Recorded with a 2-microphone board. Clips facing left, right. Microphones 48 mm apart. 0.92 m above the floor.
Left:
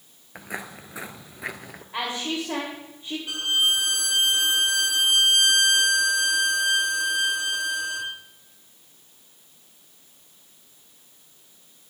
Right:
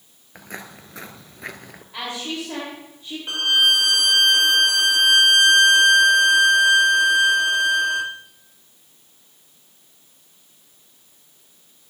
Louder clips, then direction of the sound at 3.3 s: Right 6 dB; 45° right (ahead or behind).